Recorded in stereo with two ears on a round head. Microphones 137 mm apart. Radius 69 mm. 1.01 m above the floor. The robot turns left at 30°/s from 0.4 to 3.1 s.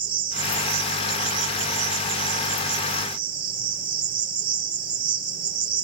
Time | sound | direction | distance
0.0 | an insect | 35° right | 4 m